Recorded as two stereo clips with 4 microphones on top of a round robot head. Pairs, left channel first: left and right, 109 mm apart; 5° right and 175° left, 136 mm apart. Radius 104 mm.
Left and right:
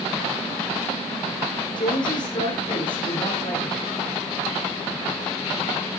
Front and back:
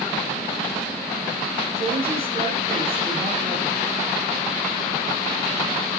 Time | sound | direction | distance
1.8 | a woman speaking | 135° left | 9 m